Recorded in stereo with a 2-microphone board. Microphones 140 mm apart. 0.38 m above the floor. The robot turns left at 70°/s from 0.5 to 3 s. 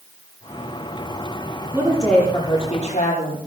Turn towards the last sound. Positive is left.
turn(degrees=110)